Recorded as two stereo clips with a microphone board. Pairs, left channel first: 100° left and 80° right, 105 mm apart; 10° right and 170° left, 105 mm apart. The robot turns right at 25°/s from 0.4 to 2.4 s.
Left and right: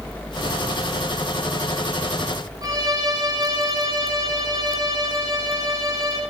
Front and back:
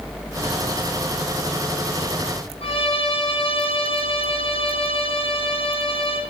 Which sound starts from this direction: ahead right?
A violin, at 2.6 s.